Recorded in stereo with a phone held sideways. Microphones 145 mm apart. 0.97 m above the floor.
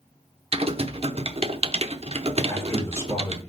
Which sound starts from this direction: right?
Typing on a keyboard, at 0.5 s.